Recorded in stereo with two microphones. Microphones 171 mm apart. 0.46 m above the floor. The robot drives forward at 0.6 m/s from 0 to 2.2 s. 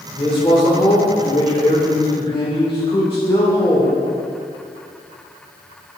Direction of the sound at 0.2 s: 30° left (ahead or behind).